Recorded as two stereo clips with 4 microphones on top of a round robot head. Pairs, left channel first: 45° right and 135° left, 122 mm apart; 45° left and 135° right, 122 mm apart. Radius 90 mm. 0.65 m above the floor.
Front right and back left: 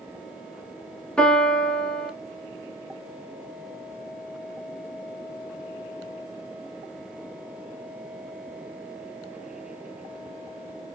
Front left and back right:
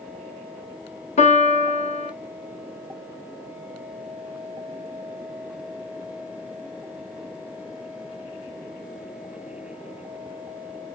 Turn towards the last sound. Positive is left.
turn(degrees=35)